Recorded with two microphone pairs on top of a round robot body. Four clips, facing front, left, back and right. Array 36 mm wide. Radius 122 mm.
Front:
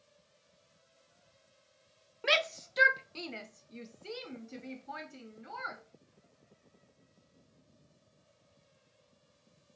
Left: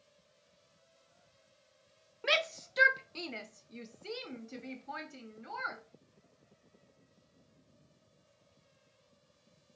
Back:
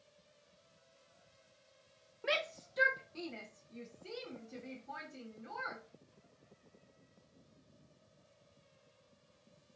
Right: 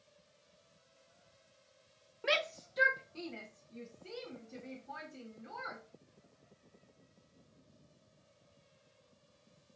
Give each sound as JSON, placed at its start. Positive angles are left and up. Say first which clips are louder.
{"t": 2.2, "sound": "a shout", "louder": "left 2 dB, front 7 dB", "azimuth_deg": 10, "distance_m": 0.6}